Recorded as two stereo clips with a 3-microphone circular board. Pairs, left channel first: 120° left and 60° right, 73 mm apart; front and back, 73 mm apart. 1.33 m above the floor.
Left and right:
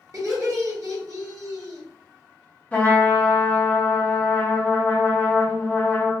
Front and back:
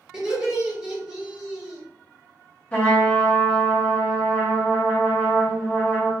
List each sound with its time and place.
0.1 s laughter: 100° right, 1.2 m
2.7 s a trumpet: 65° left, 1.0 m